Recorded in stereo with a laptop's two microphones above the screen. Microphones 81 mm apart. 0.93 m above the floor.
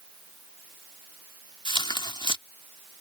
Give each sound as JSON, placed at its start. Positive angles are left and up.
{"t": 1.6, "sound": "tearing paper", "side_deg": 65}